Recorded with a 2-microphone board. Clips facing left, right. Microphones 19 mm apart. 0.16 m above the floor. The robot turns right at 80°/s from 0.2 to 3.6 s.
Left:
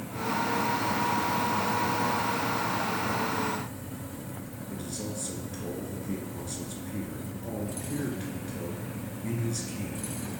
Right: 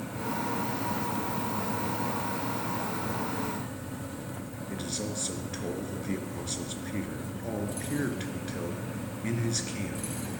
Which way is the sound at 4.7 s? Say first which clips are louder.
Right 2 dB; 35° right (ahead or behind).